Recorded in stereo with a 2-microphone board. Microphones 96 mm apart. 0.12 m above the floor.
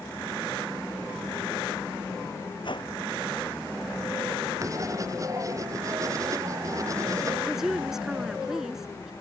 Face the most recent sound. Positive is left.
turn(degrees=-5)  # may be behind; listen again after turning